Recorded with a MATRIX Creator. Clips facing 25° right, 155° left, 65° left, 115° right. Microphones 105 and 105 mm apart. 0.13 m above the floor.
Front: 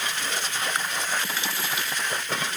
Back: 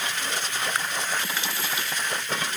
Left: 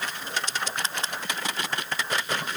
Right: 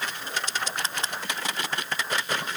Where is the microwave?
I don't hear a microwave.